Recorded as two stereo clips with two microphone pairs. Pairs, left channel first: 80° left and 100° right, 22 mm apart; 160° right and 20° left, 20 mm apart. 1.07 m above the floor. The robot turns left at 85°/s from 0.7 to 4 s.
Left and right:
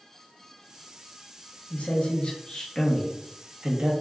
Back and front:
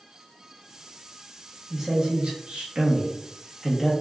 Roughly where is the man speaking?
Left.